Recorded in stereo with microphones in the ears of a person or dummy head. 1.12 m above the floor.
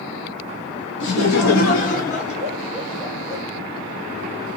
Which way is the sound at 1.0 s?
60° left (ahead or behind).